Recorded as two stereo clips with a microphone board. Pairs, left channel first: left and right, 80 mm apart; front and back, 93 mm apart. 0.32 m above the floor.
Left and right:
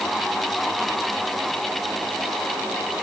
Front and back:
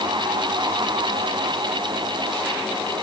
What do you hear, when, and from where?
Only background noise.